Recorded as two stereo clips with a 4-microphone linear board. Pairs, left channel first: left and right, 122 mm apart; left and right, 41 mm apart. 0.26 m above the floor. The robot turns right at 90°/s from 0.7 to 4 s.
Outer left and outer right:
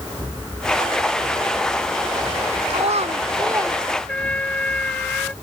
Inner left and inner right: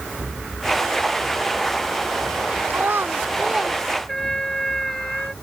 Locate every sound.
2.7 s a child speaking: 110° right; by 3.8 s 10° right
4.1 s a trumpet: 10° left (ahead or behind)